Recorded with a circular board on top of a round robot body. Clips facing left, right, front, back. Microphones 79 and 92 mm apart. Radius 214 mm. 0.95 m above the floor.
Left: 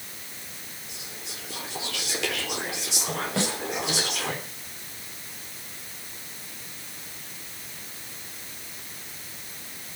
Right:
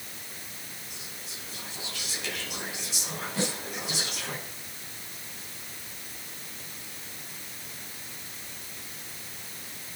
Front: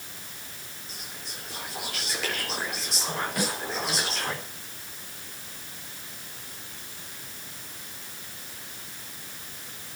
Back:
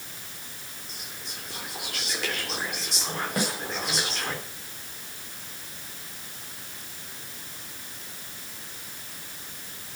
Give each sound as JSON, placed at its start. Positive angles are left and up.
{"t": 0.9, "sound": "whispering", "azimuth_deg": 90, "distance_m": 3.5}
{"t": 3.4, "sound": "a snare drum", "azimuth_deg": 125, "distance_m": 8.0}